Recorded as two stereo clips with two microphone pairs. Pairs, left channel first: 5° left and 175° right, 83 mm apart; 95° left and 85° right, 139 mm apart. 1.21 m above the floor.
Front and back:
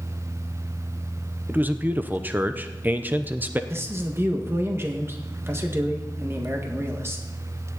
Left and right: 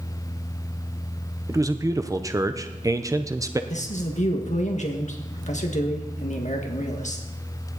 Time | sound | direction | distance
1.5 | a man speaking | 130° right | 0.7 m
3.7 | a man speaking | 125° left | 1.7 m